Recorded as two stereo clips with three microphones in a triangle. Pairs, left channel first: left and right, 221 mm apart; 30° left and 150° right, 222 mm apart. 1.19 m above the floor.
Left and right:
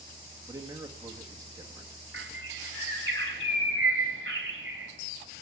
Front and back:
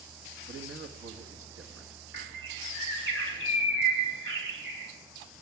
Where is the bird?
120° right, 3 m.